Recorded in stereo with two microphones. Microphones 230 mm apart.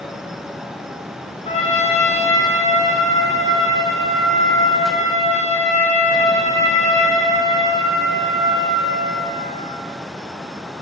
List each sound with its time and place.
1.4 s a trumpet: 30° left (ahead or behind), 1.7 m